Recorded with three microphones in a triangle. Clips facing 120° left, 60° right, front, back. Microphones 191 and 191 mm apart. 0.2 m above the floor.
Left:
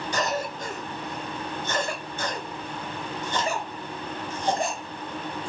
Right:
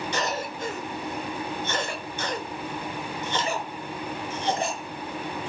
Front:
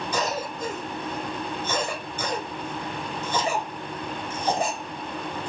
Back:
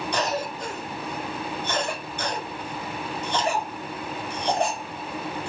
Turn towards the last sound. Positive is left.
turn(degrees=85)